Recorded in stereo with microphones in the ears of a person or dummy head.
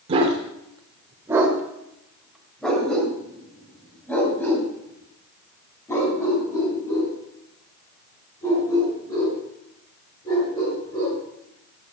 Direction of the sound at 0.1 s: 30° right (ahead or behind).